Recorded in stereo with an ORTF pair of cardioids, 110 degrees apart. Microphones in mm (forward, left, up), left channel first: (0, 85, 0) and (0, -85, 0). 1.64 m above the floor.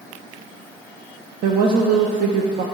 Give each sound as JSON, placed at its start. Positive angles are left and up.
{"t": 1.4, "sound": "a woman speaking", "azimuth_deg": -60, "distance_m": 0.8}